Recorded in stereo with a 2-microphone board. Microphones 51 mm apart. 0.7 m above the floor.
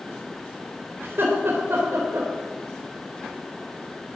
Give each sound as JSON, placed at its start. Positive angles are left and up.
{"t": 1.0, "sound": "laughter", "side_deg": -50, "distance_m": 3.5}